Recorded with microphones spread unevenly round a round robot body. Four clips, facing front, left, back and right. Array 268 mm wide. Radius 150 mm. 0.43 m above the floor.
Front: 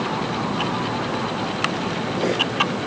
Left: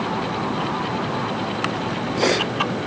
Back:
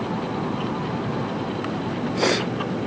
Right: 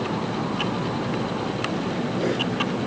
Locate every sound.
Only background noise.